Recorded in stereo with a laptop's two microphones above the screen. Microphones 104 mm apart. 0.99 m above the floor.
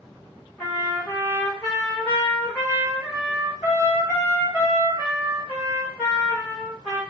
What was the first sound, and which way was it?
A trumpet, 10° left (ahead or behind).